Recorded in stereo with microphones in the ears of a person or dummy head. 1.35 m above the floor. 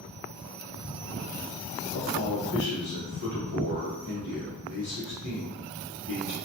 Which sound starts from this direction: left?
A man speaking, at 1.9 s.